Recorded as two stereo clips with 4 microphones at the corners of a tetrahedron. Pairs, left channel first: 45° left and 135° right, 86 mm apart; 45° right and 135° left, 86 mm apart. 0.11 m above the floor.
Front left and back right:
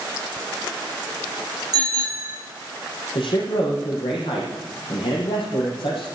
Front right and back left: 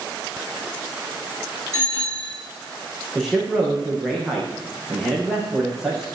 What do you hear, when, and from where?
1.7 s a bicycle bell: 90° right, 6.5 m
3.1 s a man speaking: 50° left, 5.5 m